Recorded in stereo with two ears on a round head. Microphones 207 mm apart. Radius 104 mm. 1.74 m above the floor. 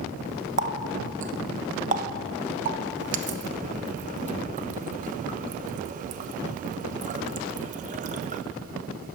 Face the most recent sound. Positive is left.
turn(degrees=-35)  # may be behind; listen again after turning